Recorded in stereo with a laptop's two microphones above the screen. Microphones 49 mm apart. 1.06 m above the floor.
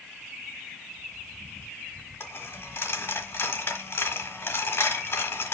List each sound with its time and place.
2.2 s a dropped coin: 50° left (ahead or behind), 1.3 m